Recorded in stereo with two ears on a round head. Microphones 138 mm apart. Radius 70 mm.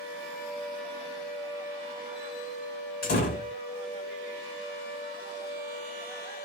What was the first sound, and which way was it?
A door slam, 60° left (ahead or behind).